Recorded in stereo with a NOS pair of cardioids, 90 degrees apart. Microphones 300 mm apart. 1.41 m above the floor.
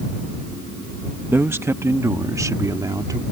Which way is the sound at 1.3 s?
5° right.